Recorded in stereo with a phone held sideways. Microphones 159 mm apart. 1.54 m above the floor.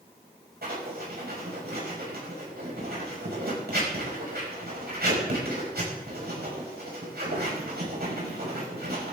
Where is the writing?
85° right, 5.5 m.